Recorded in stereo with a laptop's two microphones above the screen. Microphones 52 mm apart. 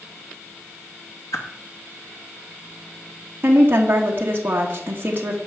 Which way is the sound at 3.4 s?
35° right (ahead or behind).